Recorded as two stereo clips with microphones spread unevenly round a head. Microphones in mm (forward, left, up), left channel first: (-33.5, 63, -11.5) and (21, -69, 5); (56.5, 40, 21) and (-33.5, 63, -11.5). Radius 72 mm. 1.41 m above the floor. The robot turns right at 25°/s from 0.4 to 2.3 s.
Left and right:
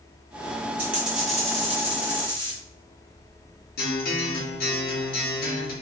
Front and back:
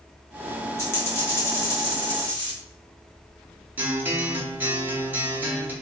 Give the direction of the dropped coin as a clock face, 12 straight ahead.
12 o'clock.